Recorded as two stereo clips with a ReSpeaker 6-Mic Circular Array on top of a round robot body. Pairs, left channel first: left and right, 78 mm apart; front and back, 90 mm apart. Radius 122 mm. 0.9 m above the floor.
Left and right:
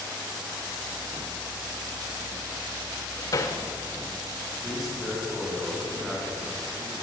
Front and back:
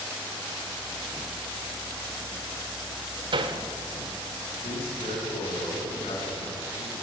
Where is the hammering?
145° left, 1.5 m.